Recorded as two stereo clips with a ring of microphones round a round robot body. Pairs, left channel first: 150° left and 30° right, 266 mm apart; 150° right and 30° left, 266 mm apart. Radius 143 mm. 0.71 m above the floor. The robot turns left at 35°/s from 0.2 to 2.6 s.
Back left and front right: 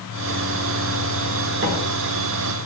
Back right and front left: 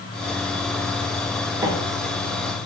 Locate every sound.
1.6 s a microwave: 45° right, 0.7 m; by 1.7 s 50° right, 0.7 m